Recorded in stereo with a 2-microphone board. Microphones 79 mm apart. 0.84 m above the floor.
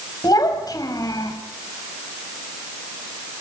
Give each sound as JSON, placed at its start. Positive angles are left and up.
{"t": 0.2, "sound": "a child speaking", "side_deg": 55, "distance_m": 4.0}